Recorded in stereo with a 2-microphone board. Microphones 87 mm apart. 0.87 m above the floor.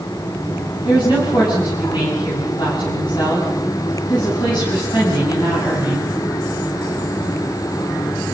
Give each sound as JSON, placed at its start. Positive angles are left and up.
{"t": 0.8, "sound": "a woman speaking", "side_deg": 60, "distance_m": 7.0}